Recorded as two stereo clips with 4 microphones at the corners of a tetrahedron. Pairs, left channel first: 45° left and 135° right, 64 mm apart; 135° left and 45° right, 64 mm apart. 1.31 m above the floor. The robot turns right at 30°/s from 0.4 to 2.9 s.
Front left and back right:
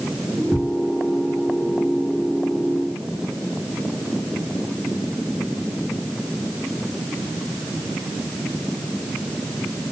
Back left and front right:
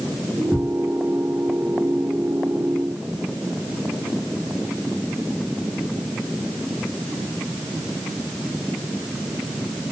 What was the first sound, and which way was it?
Ticking, 115° right.